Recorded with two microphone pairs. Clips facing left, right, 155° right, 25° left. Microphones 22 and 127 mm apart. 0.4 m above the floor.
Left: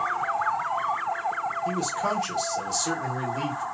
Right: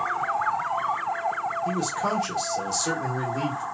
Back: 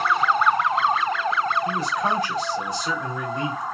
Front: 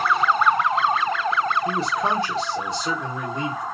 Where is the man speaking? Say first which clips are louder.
Even, front 1 dB; 5° right, 0.9 m.